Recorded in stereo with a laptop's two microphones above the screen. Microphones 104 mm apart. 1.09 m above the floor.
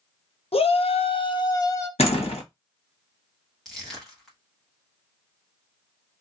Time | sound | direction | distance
0.5 | a shout | 75° left (ahead or behind) | 0.6 m
2.0 | a door slam | 85° left | 0.9 m
3.6 | crushing | centre (ahead or behind) | 1.0 m